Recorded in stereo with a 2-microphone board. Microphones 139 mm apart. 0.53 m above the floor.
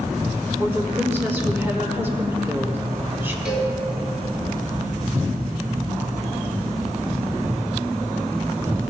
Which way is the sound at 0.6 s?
15° right (ahead or behind).